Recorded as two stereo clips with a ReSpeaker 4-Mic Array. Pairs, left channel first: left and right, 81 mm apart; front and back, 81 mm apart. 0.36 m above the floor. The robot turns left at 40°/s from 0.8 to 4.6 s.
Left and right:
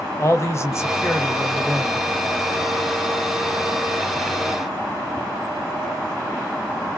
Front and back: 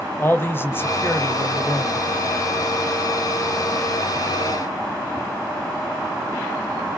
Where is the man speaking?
50° left, 2 m; by 2.0 s straight ahead, 2 m.